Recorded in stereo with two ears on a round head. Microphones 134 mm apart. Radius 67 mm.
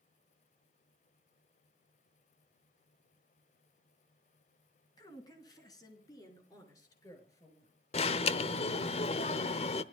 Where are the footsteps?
No footsteps in this recording.